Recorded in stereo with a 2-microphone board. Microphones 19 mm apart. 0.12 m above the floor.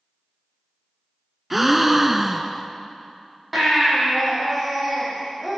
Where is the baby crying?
20° right (ahead or behind), 4 m.